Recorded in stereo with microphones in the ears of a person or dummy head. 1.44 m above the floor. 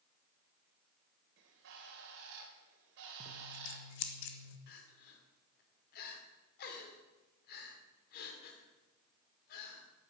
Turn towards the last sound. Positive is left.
turn(degrees=55)  # may be behind; listen again after turning